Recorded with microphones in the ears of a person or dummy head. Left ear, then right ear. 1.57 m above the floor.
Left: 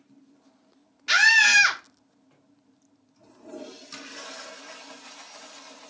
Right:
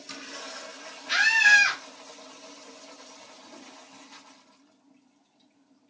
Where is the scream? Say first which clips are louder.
Left 2 dB; 65° left (ahead or behind), 0.8 m.